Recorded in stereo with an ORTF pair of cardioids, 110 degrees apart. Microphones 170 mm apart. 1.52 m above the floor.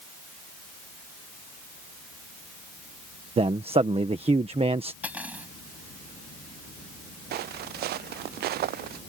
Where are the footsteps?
70° right.